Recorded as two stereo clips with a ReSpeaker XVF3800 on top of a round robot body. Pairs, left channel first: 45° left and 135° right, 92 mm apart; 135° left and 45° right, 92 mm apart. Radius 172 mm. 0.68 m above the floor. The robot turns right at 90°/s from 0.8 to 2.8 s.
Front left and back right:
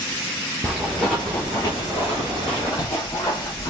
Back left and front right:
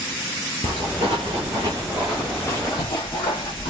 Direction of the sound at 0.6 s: 50° right.